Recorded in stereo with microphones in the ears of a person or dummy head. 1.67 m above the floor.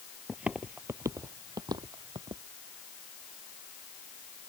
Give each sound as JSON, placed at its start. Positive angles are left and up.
{"t": 0.3, "sound": "footsteps", "side_deg": -5}